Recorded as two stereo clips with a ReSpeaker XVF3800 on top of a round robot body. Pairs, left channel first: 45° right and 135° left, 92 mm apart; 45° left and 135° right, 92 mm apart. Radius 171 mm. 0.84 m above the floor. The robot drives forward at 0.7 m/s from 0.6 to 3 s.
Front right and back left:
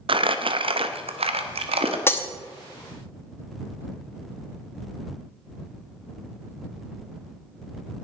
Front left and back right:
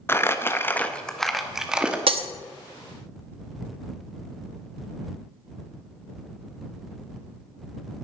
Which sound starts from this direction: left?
Crumpling, at 0.1 s.